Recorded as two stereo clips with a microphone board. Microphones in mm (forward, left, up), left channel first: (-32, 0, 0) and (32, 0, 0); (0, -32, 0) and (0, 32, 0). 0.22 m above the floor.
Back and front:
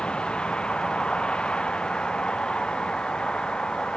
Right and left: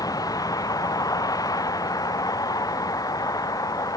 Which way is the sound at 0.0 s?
105° right.